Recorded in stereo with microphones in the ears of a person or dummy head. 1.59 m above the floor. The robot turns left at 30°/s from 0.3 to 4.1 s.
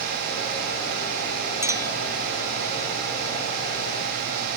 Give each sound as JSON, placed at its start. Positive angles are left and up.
{"t": 1.6, "sound": "a clink", "side_deg": -15}